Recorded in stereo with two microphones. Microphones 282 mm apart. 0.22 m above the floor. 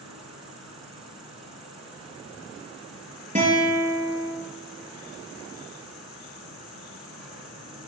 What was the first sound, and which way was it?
An insect, 65° right (ahead or behind).